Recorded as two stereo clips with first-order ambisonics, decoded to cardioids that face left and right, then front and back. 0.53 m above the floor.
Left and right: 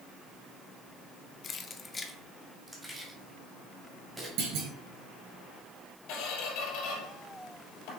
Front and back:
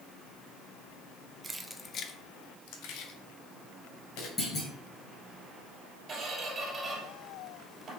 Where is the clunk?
70° right, 3.5 m.